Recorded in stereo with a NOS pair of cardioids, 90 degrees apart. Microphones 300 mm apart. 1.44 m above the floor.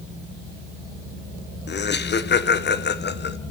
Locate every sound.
1.7 s laughter: 35° left, 0.9 m